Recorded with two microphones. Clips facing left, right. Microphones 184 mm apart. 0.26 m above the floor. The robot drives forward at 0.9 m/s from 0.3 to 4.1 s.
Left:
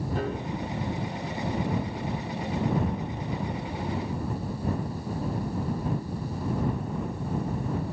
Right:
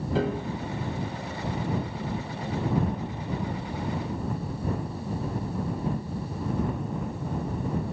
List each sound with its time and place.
0.1 s a piano: 85° right, 2.5 m